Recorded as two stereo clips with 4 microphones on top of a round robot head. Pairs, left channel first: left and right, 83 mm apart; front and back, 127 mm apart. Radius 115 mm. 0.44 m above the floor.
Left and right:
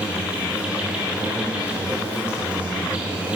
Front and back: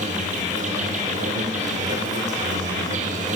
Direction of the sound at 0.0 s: 165° right.